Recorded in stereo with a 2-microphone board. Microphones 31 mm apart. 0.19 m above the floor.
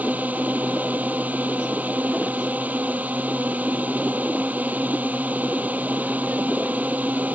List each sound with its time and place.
0.0 s a drone: 60° right (ahead or behind)